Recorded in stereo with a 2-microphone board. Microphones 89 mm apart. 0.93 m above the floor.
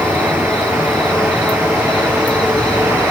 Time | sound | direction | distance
0.0 | an insect | 10° left (ahead or behind) | 3 m